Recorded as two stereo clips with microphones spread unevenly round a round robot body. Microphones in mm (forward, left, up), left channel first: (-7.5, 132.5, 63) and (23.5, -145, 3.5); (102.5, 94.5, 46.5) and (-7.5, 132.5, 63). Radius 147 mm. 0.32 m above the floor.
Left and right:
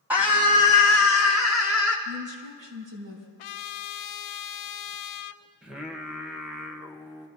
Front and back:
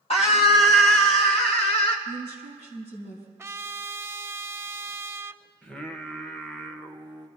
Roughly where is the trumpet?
Left.